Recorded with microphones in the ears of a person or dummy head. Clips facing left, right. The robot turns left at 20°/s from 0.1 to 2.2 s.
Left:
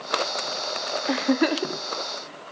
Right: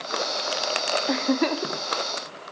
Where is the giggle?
5° left (ahead or behind), 0.7 m; by 2.5 s 25° left (ahead or behind), 0.7 m.